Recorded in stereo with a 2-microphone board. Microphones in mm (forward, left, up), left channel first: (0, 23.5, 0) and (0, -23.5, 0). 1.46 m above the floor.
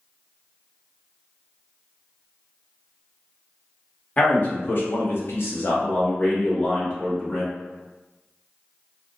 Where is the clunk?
No clunk in this recording.